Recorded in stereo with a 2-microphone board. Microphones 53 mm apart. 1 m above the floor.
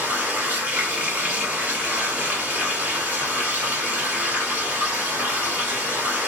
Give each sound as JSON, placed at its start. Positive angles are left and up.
{"t": 0.0, "sound": "running water", "side_deg": -30, "distance_m": 1.0}